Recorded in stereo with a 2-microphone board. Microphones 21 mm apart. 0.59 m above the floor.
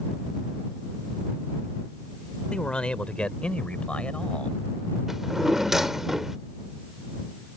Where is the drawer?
20° right (ahead or behind).